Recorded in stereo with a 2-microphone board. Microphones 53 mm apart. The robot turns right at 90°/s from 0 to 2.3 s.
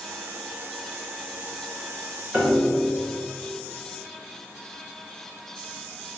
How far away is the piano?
About 3.5 m.